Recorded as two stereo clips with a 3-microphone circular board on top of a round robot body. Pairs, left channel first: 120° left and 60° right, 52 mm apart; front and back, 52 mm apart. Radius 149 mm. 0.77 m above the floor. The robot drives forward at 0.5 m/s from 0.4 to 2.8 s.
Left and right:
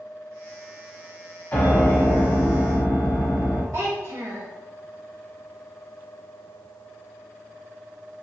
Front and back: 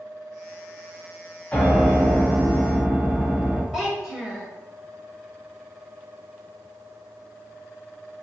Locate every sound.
1.5 s a piano: 70° left, 1.2 m; by 3.6 s 100° left, 1.2 m
3.7 s a child speaking: 110° right, 0.7 m